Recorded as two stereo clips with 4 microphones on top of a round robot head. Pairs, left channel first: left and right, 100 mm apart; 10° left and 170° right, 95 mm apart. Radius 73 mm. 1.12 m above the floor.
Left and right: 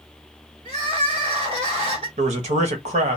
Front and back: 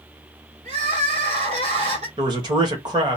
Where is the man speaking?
115° right, 1.1 m.